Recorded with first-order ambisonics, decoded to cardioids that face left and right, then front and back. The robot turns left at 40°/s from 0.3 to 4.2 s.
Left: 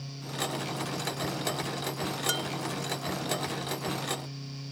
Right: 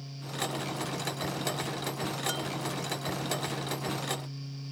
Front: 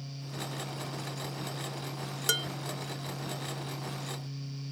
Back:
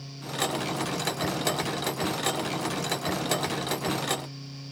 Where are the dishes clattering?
25° left; by 2.5 s 15° left.